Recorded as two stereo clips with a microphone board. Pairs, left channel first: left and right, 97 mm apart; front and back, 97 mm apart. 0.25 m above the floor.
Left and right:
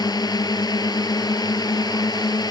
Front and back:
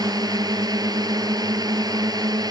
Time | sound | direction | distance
0.0 | a drone | 135° left | ?